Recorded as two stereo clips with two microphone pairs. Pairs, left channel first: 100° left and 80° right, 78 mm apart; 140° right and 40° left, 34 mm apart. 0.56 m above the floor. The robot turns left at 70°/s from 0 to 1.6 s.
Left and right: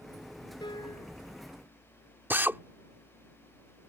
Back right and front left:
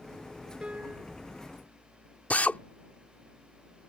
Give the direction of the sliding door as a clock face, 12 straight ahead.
I don't hear a sliding door.